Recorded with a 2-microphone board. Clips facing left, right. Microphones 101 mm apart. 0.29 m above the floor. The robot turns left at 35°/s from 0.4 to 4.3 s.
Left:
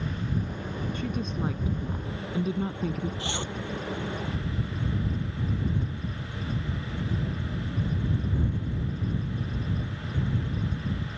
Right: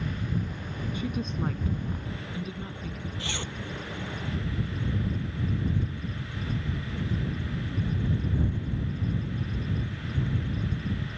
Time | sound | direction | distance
0.9 | a woman speaking | 165° right | ?
3.2 | a zipper | 30° left (ahead or behind) | ?